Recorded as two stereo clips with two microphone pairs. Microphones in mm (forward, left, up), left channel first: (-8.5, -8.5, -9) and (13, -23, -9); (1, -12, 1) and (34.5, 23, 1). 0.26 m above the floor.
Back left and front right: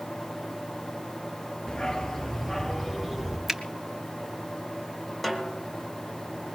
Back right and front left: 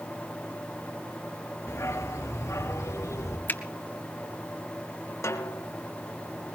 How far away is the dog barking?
About 1.8 m.